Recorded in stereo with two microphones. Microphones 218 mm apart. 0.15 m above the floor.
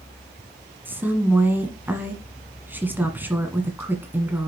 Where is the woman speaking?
10° right (ahead or behind), 1.5 m.